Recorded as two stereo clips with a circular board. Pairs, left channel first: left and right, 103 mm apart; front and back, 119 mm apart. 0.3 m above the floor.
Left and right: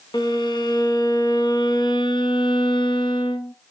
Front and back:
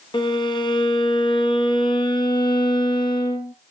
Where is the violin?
50° left, 1.7 m.